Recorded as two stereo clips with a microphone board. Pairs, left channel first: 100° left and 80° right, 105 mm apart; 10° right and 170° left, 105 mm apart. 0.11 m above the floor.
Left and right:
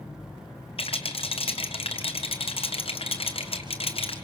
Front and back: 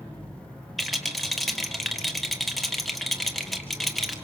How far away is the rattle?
About 1.5 m.